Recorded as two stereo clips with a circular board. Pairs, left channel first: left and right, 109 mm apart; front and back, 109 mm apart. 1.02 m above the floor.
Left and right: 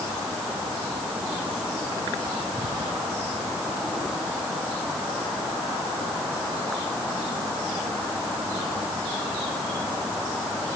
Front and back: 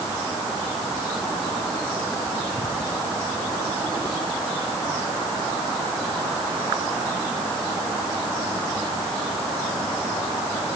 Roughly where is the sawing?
I don't hear sawing.